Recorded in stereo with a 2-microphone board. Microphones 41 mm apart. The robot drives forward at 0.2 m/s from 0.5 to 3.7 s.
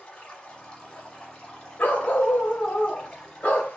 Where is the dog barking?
50° left (ahead or behind), 0.9 m; by 3.8 s 40° left (ahead or behind), 1.1 m.